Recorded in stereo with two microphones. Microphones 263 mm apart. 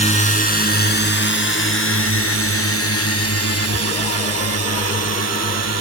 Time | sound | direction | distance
0.0 | a drone | 25° left (ahead or behind) | ?